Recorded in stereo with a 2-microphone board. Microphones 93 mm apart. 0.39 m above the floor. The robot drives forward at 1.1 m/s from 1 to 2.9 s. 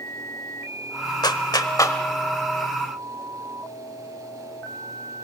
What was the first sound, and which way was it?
A clap, 50° left (ahead or behind).